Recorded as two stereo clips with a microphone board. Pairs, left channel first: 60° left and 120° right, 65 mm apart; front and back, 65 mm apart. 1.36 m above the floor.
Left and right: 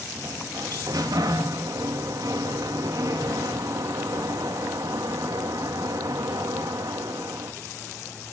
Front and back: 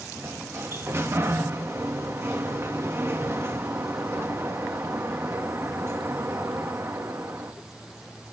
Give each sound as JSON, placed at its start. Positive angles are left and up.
{"t": 0.1, "sound": "a sliding door", "azimuth_deg": -130, "distance_m": 2.0}